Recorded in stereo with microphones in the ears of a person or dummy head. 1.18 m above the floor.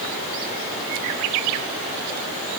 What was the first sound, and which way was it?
Only background noise.